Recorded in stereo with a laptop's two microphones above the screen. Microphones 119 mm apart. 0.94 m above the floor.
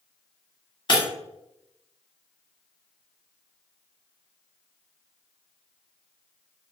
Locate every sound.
0.9 s breaking glass: 40° left (ahead or behind), 1.6 m